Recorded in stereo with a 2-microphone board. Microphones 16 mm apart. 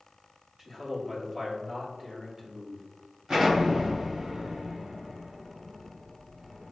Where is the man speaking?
40° right (ahead or behind), 1.8 m.